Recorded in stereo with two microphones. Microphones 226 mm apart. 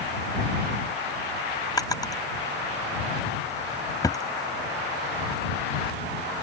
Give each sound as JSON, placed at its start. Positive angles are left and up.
{"t": 1.8, "sound": "a drawer", "side_deg": 15}